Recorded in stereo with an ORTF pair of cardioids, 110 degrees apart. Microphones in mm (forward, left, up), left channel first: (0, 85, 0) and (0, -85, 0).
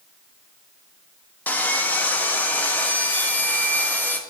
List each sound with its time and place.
1.5 s sawing: 10° left, 0.8 m